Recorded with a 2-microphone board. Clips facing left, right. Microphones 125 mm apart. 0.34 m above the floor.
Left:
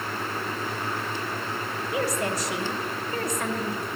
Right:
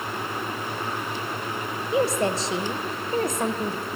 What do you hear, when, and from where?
1.9 s a woman speaking: 25° right (ahead or behind), 0.9 m